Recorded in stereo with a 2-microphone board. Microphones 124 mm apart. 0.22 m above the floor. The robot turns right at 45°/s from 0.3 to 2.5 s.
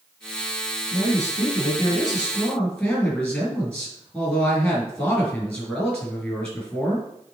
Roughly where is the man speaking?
Left.